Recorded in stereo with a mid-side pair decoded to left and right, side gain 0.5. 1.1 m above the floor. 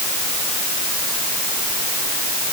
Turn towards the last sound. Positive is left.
No sound to turn to.